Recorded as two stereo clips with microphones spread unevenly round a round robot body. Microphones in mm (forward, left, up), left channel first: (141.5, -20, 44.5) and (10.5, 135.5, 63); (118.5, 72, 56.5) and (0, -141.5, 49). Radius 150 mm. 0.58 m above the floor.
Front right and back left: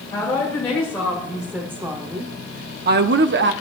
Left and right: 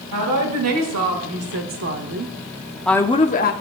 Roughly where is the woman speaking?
Behind right.